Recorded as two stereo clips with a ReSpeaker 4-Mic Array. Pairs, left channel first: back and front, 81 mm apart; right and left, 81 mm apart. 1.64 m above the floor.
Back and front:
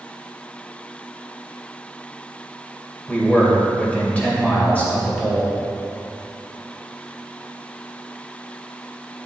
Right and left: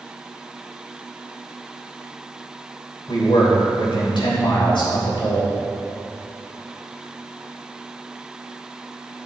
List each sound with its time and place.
3.1 s a man speaking: 110° right, 2.5 m